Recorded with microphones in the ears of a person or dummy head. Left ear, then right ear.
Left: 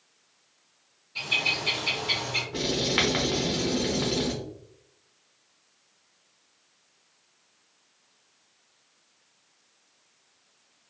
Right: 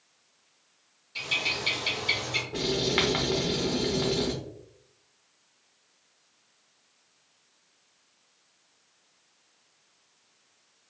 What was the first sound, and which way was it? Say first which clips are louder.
A bird: left 3 dB; 25° right (ahead or behind).